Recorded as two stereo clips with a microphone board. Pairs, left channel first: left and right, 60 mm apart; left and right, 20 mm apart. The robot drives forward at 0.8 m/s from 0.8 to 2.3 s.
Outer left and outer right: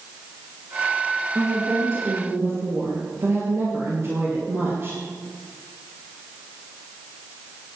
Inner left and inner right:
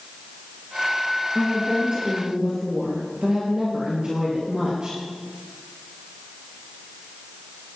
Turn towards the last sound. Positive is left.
turn(degrees=-50)  # may be behind; listen again after turning